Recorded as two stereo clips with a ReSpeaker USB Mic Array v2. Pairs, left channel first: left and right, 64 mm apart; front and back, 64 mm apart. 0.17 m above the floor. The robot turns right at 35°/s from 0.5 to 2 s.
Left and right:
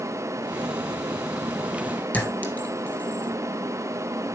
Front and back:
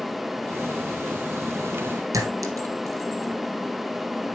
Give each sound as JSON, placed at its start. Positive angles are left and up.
{"t": 2.1, "sound": "a clink", "azimuth_deg": 155, "distance_m": 1.8}